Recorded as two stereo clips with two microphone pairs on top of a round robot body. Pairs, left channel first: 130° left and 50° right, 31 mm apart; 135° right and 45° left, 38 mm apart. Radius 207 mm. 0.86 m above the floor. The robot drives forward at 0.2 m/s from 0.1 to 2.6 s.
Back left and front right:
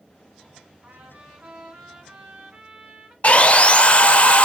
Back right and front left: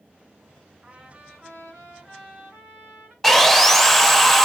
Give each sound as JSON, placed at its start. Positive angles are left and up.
{"t": 0.8, "sound": "a trumpet", "azimuth_deg": -45, "distance_m": 0.7}
{"t": 3.2, "sound": "sawing", "azimuth_deg": 125, "distance_m": 0.6}